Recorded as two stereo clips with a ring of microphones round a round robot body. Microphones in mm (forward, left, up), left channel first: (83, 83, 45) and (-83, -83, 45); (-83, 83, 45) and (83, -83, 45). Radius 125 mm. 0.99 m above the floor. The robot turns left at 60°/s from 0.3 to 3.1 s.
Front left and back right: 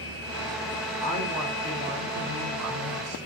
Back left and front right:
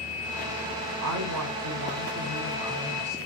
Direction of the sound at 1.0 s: 20° right.